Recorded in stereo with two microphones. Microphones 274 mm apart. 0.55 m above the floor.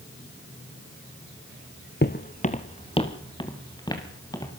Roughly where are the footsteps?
Left.